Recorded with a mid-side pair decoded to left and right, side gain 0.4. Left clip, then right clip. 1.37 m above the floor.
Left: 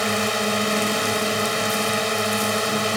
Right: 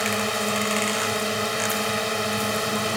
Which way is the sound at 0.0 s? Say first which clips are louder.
Left 2 dB; 15° left.